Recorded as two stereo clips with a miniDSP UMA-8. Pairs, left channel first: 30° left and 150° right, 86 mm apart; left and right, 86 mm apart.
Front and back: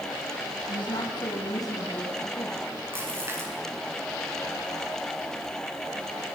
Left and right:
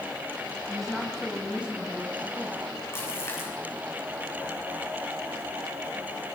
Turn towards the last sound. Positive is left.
turn(degrees=150)